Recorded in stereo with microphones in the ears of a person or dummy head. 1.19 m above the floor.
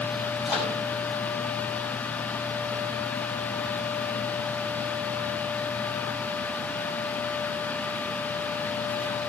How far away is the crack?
I don't hear a crack.